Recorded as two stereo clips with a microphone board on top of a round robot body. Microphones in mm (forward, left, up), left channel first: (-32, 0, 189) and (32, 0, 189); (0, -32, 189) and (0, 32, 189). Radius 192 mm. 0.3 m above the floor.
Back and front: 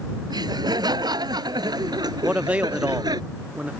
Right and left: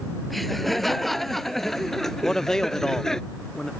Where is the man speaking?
20° right.